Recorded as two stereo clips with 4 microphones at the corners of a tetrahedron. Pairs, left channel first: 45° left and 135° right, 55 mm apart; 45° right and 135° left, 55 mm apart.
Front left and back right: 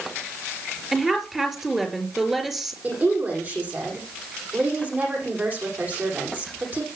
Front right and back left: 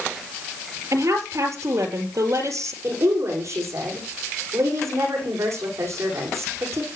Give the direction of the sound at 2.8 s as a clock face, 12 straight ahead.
6 o'clock.